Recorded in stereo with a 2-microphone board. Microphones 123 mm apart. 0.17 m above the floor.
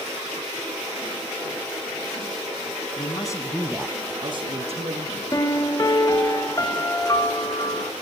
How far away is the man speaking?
About 1.5 m.